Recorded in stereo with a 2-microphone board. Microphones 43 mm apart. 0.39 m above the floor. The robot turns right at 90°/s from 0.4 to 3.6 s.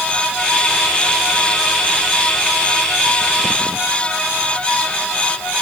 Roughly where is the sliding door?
No sliding door in this recording.